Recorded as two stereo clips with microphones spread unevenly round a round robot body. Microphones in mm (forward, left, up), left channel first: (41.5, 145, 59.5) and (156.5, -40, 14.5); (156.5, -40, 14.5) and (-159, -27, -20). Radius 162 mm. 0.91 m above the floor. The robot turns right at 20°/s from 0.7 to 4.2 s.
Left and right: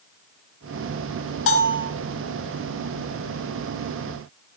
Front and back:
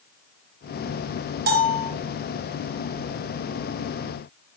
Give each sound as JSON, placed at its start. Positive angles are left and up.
{"t": 1.5, "sound": "a bell", "azimuth_deg": 115, "distance_m": 2.5}